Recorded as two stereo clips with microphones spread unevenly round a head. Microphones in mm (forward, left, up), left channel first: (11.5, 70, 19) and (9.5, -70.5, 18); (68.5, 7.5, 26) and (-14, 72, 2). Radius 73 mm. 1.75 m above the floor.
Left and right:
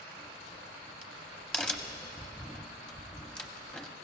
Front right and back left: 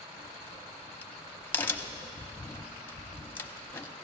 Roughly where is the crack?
Ahead.